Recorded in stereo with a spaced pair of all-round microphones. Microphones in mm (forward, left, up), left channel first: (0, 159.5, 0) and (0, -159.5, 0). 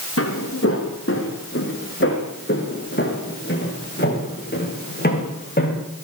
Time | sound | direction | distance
0.2 | footsteps | 45° left (ahead or behind) | 5 m